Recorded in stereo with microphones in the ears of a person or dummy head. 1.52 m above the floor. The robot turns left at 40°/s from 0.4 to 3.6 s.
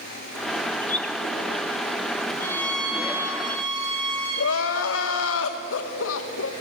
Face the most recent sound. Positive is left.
turn(degrees=80)